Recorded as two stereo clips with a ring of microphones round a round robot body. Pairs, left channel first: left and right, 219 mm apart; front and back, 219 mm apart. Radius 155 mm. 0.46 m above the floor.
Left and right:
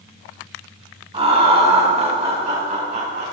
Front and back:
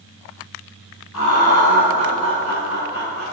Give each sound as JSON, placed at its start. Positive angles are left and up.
{"t": 1.1, "sound": "laughter", "azimuth_deg": -25, "distance_m": 5.0}